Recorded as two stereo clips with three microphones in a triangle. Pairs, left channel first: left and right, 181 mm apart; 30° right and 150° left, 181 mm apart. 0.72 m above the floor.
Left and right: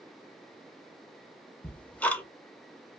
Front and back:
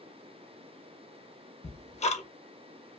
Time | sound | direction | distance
1.6 | ticking | 10° left | 0.6 m